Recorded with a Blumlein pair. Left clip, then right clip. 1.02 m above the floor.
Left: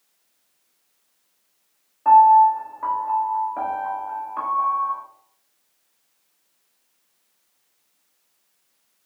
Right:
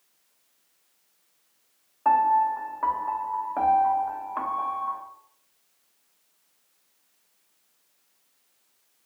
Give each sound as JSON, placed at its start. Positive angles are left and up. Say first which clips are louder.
{"t": 2.0, "sound": "a piano", "louder": "left 9 dB", "azimuth_deg": -10, "distance_m": 1.2}